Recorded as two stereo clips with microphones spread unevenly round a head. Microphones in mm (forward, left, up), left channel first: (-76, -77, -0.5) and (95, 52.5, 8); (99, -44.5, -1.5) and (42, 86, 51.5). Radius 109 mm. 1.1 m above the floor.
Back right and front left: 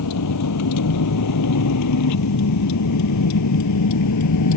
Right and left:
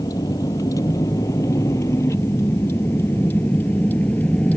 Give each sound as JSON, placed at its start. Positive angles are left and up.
{"t": 0.0, "sound": "a vehicle", "azimuth_deg": -140}